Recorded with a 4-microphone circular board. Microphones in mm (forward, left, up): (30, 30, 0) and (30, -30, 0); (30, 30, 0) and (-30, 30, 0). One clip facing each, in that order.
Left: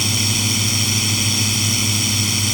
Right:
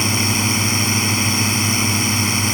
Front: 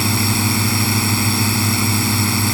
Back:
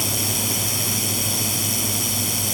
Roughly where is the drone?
Ahead right.